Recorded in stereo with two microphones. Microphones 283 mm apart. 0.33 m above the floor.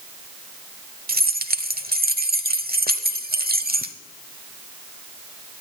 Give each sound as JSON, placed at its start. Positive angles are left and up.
{"t": 1.1, "sound": "keys jangling", "side_deg": -35, "distance_m": 0.8}